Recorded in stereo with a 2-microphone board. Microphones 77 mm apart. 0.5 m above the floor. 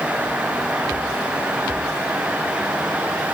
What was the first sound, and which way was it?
Only background noise.